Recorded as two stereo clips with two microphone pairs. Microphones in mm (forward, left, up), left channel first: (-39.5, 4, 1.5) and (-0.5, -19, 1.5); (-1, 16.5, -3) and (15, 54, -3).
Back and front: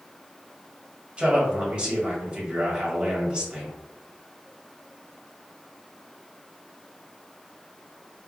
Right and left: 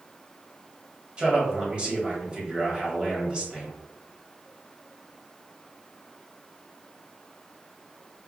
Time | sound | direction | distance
1.2 | a man speaking | 20° left | 1.8 m